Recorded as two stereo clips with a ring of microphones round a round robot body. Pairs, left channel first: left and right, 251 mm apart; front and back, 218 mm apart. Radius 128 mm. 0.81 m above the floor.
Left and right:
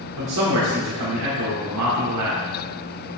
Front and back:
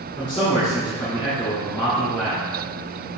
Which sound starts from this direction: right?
A man speaking, at 0.2 s.